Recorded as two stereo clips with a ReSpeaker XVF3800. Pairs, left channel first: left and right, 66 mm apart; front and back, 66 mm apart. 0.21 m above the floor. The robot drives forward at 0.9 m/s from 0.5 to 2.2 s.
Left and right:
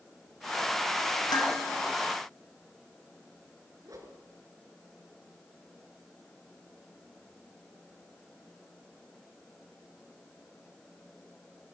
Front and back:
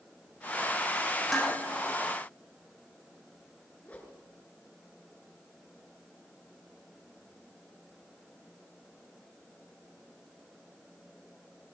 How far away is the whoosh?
About 3 m.